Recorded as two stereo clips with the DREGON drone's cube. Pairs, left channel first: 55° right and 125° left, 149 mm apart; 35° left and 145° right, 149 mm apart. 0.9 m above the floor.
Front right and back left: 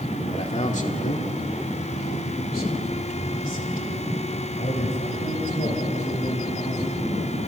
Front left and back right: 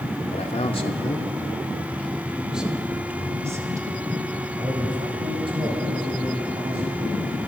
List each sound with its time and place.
0.3 s a man speaking: 5° right, 2 m; by 7.4 s 95° right, 6.5 m